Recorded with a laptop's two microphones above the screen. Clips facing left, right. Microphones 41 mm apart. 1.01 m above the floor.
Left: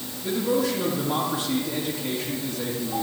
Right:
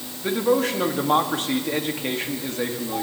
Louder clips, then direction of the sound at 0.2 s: Right 3 dB; 55° right (ahead or behind).